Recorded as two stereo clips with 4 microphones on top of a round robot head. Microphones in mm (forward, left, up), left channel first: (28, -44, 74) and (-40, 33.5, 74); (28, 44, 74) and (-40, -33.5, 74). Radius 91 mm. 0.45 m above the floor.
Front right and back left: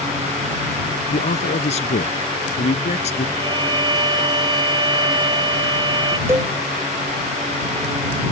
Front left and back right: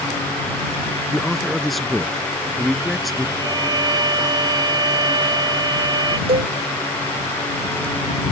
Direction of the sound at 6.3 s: 165° right.